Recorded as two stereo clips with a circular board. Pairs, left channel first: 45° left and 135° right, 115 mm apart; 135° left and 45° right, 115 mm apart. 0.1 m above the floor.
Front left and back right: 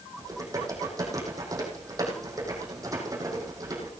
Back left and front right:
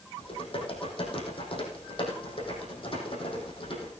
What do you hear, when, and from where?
0.2 s typing on a keyboard: 165° left, 4 m